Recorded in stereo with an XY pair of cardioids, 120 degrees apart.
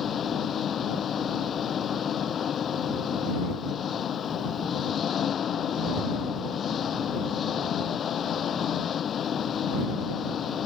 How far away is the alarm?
No alarm in this recording.